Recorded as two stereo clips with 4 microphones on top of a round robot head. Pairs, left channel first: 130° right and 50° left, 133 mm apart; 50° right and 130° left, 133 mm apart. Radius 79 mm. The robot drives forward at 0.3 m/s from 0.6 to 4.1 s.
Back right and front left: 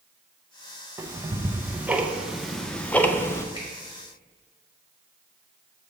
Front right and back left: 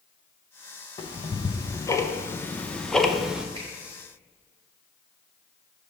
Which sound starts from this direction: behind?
A finger snap, at 3.5 s.